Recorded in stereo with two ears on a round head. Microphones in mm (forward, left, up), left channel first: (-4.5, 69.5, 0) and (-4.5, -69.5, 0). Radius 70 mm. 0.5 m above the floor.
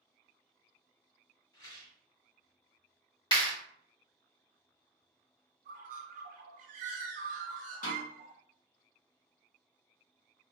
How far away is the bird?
About 0.7 m.